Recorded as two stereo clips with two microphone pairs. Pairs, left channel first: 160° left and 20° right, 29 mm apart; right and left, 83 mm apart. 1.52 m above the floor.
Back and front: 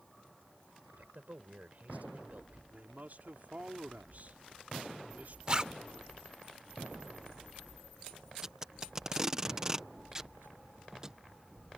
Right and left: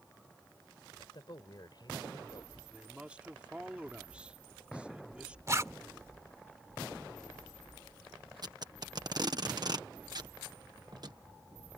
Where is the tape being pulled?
50° left.